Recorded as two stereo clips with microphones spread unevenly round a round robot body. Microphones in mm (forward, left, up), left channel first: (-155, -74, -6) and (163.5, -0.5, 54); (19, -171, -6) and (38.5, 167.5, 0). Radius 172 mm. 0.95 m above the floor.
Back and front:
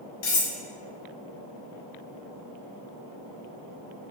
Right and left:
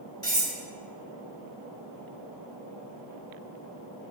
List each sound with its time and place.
0.2 s cutlery clinking: 175° right, 0.9 m